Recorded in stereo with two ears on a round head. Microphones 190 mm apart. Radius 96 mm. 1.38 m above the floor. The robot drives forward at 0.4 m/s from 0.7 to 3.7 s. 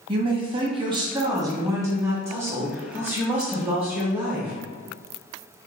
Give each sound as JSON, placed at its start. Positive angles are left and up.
{"t": 0.1, "sound": "a man speaking", "side_deg": -25, "distance_m": 0.7}